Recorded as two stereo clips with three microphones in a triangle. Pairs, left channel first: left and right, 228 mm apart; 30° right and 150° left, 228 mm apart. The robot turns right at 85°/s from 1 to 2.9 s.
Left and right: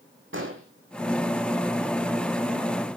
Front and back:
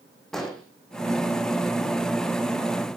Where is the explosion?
120° right, 3 m.